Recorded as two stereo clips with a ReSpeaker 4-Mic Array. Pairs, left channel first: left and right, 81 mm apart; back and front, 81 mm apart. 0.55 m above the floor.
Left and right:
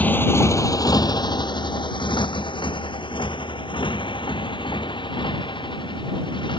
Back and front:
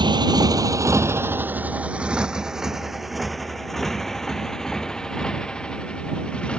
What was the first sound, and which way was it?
A motorcycle, 20° left.